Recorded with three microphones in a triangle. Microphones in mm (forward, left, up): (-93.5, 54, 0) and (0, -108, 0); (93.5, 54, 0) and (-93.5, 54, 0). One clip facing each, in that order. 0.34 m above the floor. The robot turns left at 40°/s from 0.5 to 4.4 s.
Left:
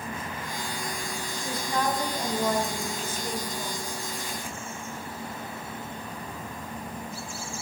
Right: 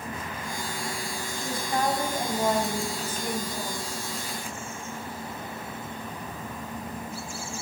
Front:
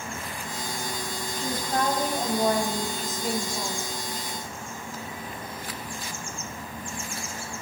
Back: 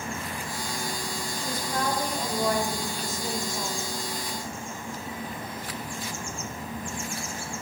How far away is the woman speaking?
About 2.5 m.